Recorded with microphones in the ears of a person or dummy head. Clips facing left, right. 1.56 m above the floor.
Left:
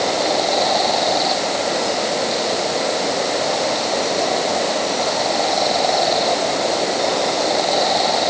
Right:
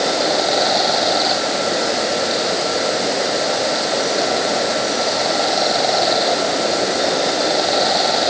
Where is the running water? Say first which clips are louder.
Right 1 dB; centre (ahead or behind).